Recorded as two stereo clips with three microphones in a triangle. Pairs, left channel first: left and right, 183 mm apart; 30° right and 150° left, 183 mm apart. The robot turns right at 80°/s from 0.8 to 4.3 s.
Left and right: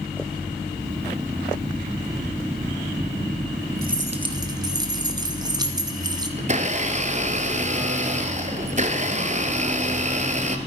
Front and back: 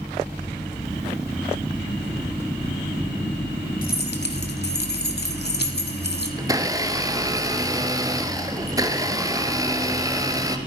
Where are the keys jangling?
65° right, 1.6 m; by 6.3 s 25° right, 1.6 m.